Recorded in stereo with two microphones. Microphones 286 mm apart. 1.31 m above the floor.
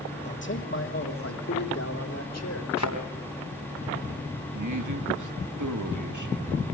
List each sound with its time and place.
0.2 s a man speaking: 35° left (ahead or behind), 2.5 m; by 2.7 s 60° left (ahead or behind), 3.5 m
2.8 s a thud: 70° left (ahead or behind), 3.5 m
4.5 s a man speaking: 75° right (ahead or behind), 2.5 m